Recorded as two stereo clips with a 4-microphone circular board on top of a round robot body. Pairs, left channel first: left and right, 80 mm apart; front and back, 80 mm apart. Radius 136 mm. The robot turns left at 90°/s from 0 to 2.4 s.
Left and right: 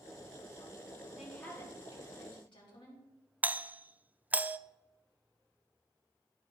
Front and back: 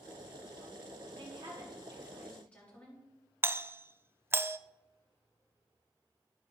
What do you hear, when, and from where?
1.2 s a woman speaking: 175° right, 4.5 m; by 3.0 s 75° left, 4.5 m
3.4 s a doorbell: 145° right, 0.6 m